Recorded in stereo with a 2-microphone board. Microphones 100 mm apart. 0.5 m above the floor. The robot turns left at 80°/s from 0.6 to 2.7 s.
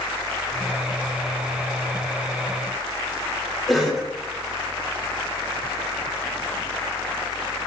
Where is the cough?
Centre (ahead or behind), 1.3 m.